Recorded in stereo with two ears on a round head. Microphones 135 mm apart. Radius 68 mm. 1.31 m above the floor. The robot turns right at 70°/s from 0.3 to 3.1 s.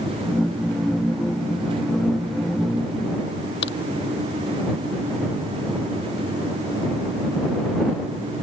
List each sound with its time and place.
3.6 s a crack: 85° left